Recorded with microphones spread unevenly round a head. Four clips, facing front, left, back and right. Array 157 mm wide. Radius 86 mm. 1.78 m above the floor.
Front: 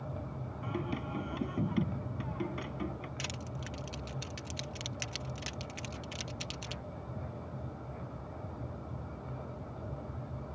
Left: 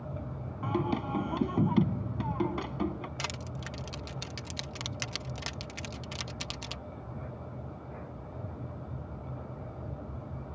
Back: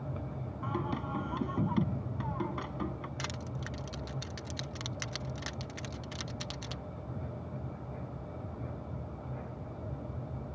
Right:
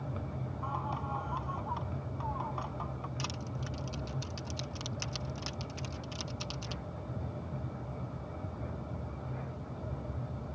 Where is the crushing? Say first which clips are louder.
Left 1 dB, back 2 dB; 85° left.